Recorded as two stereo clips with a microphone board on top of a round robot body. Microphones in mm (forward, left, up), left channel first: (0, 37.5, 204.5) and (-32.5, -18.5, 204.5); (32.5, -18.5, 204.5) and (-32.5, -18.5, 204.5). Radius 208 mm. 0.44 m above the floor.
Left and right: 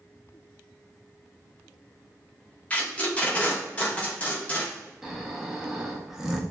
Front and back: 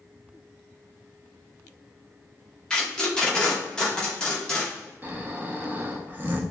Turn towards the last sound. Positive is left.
turn(degrees=165)